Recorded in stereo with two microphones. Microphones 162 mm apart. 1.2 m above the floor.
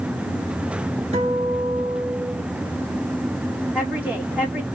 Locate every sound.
1.1 s a guitar: 45° right (ahead or behind), 2.5 m
3.7 s a woman speaking: 10° right (ahead or behind), 1.6 m